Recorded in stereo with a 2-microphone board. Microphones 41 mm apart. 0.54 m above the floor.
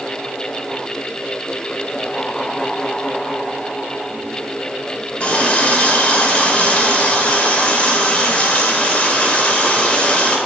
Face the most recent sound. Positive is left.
turn(degrees=35)  # may be behind; listen again after turning